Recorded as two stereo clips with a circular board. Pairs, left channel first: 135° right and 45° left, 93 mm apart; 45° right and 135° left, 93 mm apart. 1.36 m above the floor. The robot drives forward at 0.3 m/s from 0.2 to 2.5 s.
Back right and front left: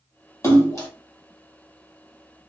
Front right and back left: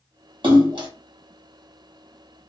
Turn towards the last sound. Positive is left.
turn(degrees=170)